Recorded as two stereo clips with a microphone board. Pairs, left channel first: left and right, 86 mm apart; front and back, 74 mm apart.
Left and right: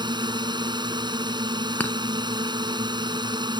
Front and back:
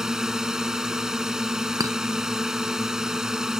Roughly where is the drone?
Right.